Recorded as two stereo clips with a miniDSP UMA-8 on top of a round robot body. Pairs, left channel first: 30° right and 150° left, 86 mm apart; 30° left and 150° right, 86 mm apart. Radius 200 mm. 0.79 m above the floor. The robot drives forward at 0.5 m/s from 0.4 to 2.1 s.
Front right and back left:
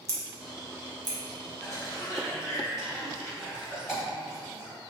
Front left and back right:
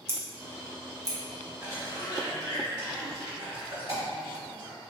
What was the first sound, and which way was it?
Scissors, 170° left.